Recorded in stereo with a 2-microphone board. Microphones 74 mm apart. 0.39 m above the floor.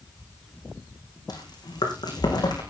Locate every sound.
1.3 s chewing: 65° left (ahead or behind), 4.5 m